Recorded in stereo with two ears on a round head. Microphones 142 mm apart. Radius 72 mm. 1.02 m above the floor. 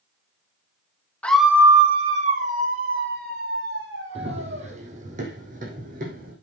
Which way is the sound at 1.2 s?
10° left (ahead or behind).